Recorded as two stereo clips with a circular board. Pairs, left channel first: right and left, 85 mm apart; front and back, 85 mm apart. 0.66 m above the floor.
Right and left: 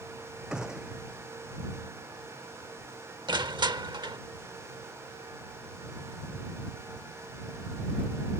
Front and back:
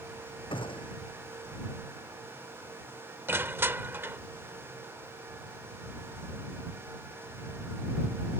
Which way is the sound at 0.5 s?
10° left.